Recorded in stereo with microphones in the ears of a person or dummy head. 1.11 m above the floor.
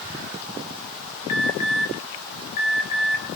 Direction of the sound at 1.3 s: 40° left (ahead or behind).